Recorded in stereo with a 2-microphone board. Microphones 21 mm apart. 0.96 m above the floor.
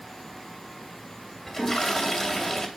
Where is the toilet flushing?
25° left (ahead or behind), 2.5 m.